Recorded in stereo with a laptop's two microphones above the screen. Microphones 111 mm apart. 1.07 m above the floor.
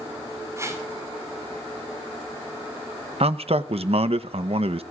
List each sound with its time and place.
0.6 s a whoosh: 25° right (ahead or behind), 5.5 m
3.2 s a man speaking: 60° right (ahead or behind), 0.9 m